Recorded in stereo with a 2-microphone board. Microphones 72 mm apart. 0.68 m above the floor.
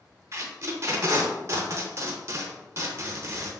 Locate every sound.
0.3 s tape being pulled: 40° right (ahead or behind), 0.5 m